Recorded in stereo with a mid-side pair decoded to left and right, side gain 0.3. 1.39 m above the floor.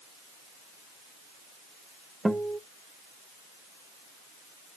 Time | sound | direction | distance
2.2 | a guitar | 15° right | 1.2 m